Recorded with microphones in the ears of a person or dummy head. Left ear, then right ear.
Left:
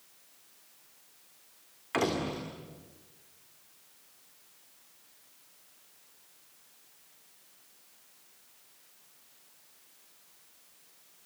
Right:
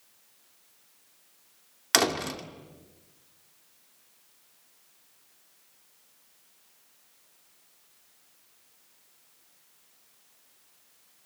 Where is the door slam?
80° right, 2.5 m.